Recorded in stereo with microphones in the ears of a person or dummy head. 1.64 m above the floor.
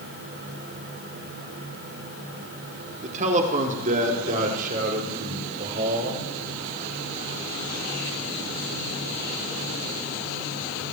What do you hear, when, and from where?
3.0 s a man speaking: 35° right (ahead or behind), 4 m; by 6.2 s 40° right (ahead or behind), 5.5 m